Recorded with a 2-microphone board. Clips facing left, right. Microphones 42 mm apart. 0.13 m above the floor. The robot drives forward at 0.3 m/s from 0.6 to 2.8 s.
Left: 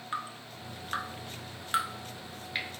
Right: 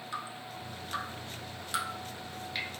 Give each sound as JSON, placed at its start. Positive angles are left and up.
{"t": 0.1, "sound": "dripping", "side_deg": 35, "distance_m": 0.6}